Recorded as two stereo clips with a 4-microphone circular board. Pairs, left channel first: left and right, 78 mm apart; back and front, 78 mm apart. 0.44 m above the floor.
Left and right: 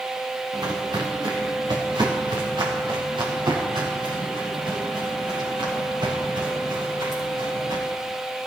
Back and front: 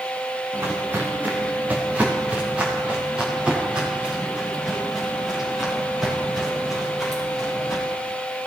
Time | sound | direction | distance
0.5 | footsteps | 65° right | 3.5 m